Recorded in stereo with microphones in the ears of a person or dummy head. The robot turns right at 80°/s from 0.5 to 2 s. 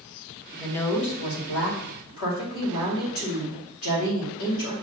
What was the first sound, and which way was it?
A woman speaking, 10° right.